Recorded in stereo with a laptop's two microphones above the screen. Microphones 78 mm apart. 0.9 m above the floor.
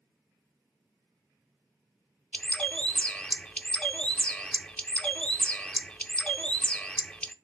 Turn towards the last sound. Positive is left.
turn(degrees=15)  # may be behind; listen again after turning